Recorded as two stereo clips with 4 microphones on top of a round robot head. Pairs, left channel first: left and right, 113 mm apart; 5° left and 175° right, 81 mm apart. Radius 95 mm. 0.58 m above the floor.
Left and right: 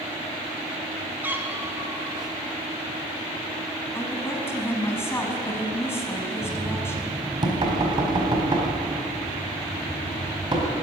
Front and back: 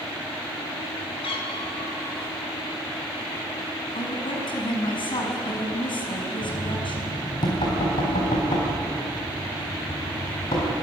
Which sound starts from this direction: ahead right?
Knocking, at 6.4 s.